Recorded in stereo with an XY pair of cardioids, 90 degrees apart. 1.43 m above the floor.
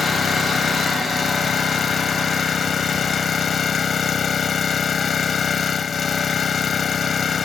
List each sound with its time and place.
0.0 s an engine running: 55° left